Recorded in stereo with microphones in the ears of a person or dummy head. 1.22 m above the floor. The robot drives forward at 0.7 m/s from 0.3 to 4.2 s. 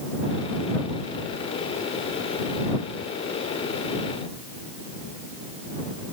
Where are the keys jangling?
No keys jangling in this recording.